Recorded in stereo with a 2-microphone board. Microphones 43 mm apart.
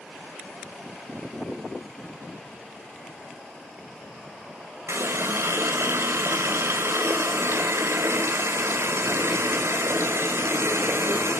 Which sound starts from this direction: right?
A running tap, at 4.9 s.